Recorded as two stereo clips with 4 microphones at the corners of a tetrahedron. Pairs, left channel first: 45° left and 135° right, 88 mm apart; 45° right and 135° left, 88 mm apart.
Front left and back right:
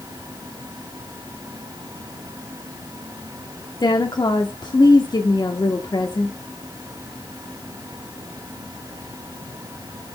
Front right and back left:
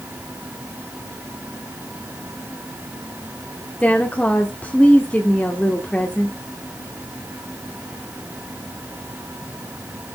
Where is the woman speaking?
25° left, 1.2 m.